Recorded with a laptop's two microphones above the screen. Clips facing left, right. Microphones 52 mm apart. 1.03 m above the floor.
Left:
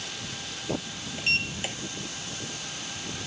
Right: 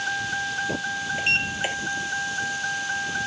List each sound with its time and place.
0.0 s a vehicle: 65° right (ahead or behind)
1.2 s a sliding door: 25° right (ahead or behind)